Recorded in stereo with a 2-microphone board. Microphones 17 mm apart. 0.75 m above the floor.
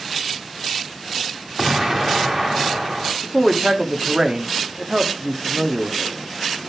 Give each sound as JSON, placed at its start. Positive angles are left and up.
{"t": 1.6, "sound": "an explosion", "side_deg": -25, "distance_m": 1.4}
{"t": 3.2, "sound": "a man speaking", "side_deg": -40, "distance_m": 1.3}